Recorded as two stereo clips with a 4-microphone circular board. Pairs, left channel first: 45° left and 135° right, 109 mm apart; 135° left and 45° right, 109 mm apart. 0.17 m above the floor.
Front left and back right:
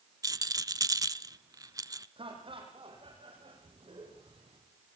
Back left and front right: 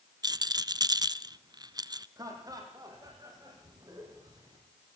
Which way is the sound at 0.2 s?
85° right.